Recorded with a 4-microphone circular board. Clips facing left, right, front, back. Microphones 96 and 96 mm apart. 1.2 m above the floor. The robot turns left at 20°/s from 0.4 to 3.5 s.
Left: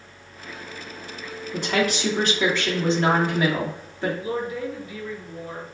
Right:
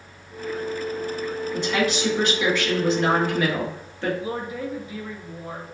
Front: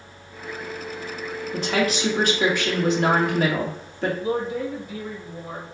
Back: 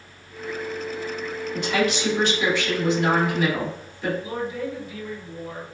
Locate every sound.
1.5 s a woman speaking: 55° left, 1.8 m; by 4.1 s 15° left, 1.8 m
4.2 s a woman speaking: 20° right, 1.6 m